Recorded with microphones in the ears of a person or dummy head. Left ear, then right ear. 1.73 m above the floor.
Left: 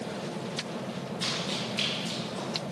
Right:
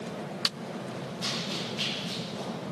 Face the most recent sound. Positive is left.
turn(degrees=25)  # may be behind; listen again after turning